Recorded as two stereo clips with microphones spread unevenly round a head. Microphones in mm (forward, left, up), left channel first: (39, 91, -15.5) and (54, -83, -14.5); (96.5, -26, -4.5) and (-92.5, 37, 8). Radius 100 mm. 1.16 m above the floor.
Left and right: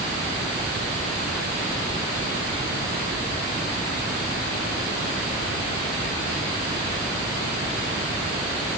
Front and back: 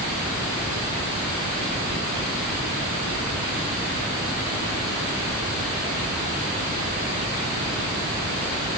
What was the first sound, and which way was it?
Only background noise.